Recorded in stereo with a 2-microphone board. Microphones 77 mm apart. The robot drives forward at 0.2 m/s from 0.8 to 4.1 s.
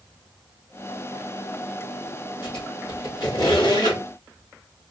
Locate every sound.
2.4 s a squeak: 70° left (ahead or behind), 3 m